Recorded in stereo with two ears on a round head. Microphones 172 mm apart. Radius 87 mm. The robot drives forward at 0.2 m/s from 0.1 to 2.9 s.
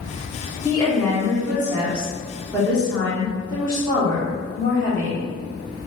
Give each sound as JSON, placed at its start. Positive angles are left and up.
{"t": 0.7, "sound": "a woman speaking", "side_deg": 10, "distance_m": 1.3}